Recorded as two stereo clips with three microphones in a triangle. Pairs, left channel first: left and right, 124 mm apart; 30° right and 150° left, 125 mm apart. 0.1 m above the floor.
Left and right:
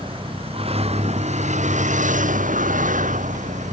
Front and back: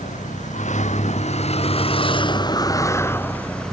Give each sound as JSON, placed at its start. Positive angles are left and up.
{"t": 0.0, "sound": "a vehicle", "azimuth_deg": -40}